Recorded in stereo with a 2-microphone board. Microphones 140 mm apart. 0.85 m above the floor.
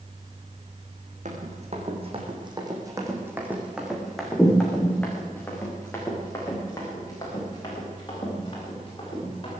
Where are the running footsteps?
60° right (ahead or behind), 3 m; by 9.5 s 35° left (ahead or behind), 8.5 m.